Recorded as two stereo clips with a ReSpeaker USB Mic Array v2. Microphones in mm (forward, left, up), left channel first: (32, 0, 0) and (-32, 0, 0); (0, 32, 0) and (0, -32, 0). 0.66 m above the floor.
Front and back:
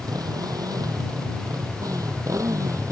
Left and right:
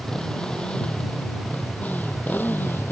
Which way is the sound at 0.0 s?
170° left.